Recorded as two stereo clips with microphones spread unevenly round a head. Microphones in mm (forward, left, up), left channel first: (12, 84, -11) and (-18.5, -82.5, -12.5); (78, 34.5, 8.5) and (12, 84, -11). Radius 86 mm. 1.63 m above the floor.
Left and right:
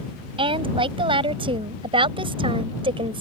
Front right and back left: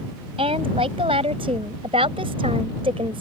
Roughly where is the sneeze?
I don't hear a sneeze.